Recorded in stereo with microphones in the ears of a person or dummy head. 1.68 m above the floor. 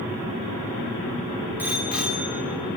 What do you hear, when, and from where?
1.6 s a bicycle bell: 10° right (ahead or behind), 2 m; by 2.8 s centre (ahead or behind), 3 m